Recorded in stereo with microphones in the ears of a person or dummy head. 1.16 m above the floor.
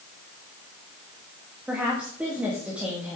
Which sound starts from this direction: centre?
A woman speaking, at 1.7 s.